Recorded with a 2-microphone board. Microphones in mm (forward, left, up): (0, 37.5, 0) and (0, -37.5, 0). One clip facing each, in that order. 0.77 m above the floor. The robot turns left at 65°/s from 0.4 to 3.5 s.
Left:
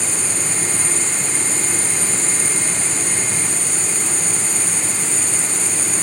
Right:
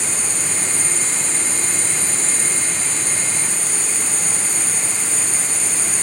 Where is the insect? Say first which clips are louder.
Left 1 dB; 100° right, 8 m; by 6.0 s 60° left, 8 m.